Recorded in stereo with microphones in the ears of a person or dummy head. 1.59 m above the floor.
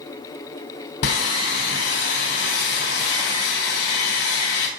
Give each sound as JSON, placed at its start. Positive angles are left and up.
{"t": 1.0, "sound": "sawing", "side_deg": 60, "distance_m": 3.0}